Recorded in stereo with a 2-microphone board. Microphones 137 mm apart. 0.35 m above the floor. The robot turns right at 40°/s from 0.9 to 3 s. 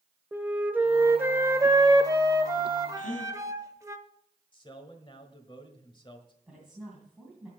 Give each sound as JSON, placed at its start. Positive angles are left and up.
{"t": 0.3, "sound": "a flute", "side_deg": -15, "distance_m": 0.8}
{"t": 3.0, "sound": "a gasp", "side_deg": 75, "distance_m": 3.0}
{"t": 4.5, "sound": "a man speaking", "side_deg": 35, "distance_m": 1.5}
{"t": 6.5, "sound": "a woman speaking", "side_deg": -5, "distance_m": 2.5}